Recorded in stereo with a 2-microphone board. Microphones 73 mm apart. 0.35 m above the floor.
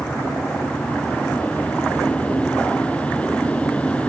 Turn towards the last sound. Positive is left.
No sound to turn to.